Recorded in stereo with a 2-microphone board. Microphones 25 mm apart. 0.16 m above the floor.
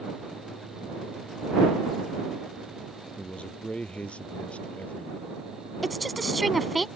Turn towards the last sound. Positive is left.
turn(degrees=0)  # may be behind; listen again after turning